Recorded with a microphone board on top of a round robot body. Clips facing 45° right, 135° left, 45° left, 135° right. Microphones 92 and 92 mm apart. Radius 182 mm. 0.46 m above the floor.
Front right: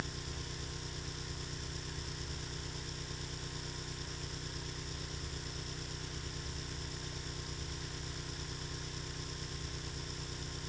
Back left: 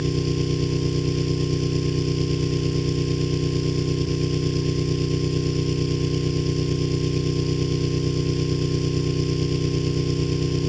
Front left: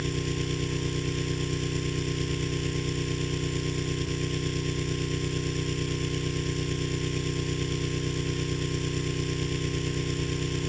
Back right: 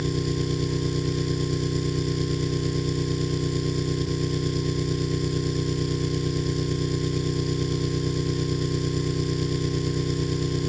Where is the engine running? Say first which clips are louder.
Back left 21 dB, back right 4 dB; 155° left.